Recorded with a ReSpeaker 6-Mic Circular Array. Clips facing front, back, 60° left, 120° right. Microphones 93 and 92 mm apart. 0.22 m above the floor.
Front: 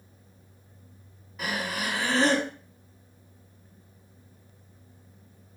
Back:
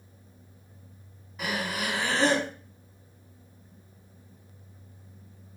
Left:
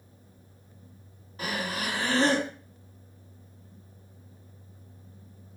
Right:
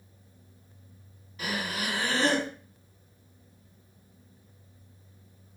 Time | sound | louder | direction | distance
1.4 | breathing | even, left 1 dB | 90° left | 0.9 m